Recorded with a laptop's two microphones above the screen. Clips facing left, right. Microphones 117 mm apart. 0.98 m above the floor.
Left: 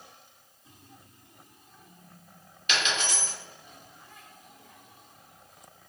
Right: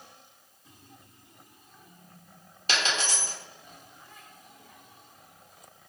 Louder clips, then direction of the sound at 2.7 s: Even; 35° right (ahead or behind).